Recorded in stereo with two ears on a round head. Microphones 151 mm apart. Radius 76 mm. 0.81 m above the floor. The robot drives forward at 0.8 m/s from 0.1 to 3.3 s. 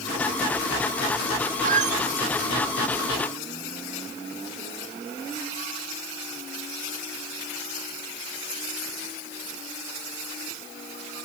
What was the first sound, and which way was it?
A squeak, 50° right (ahead or behind).